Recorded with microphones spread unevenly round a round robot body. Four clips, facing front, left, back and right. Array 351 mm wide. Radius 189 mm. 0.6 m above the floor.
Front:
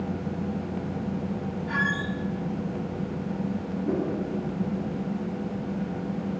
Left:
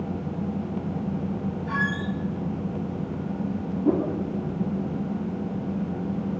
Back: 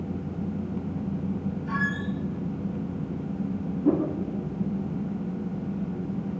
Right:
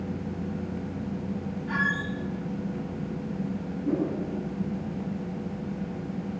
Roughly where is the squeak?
Behind.